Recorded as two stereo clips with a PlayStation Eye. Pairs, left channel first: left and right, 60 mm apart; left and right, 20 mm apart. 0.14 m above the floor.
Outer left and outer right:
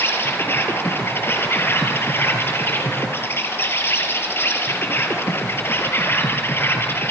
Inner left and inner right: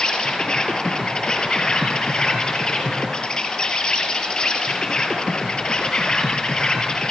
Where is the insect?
40° left (ahead or behind), 4 m.